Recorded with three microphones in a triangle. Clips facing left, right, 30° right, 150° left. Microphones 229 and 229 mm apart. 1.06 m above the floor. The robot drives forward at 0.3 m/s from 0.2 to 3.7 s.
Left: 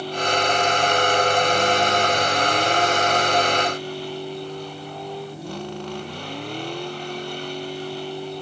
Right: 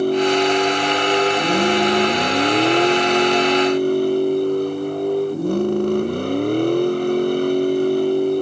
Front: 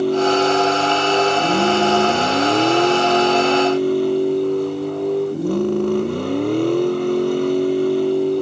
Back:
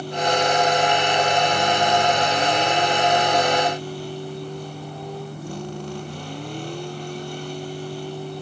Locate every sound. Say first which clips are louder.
0.0 s a vehicle: right 9 dB, front 8 dB; 50° right; by 8.4 s 55° right